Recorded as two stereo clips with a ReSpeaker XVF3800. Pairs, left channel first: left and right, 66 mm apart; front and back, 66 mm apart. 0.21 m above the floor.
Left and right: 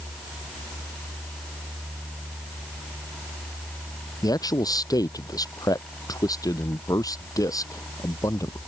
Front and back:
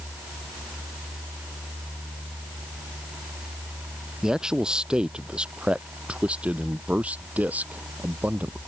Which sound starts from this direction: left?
A man speaking, at 4.2 s.